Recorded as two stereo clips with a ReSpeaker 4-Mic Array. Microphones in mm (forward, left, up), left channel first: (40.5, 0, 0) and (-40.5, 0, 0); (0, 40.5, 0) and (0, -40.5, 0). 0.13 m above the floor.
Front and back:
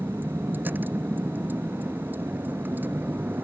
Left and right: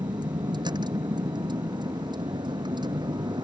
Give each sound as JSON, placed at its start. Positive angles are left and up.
{"t": 0.0, "sound": "a vehicle", "azimuth_deg": -115}